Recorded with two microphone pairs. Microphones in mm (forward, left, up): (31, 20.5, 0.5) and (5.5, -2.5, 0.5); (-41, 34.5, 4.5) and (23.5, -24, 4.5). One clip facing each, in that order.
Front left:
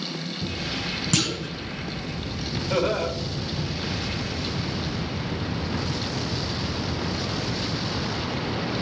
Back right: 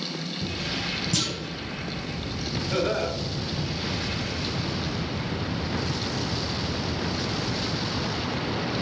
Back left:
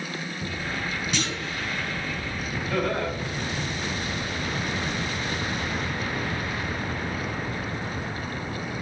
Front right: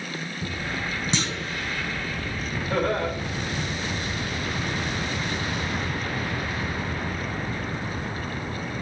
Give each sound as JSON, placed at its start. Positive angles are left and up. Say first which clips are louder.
{"t": 1.1, "sound": "a clunk", "louder": "front left 3 dB, front right 1 dB", "azimuth_deg": 20, "distance_m": 2.0}
{"t": 2.7, "sound": "laughter", "louder": "front left 2 dB, front right 2 dB", "azimuth_deg": 5, "distance_m": 5.5}